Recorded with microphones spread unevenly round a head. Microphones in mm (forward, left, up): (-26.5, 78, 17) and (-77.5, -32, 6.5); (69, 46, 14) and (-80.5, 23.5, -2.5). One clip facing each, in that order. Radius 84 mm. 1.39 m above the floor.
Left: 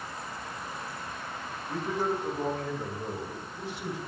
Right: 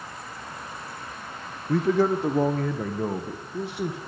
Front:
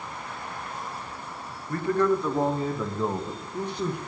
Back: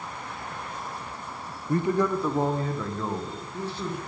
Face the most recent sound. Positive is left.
turn(degrees=-65)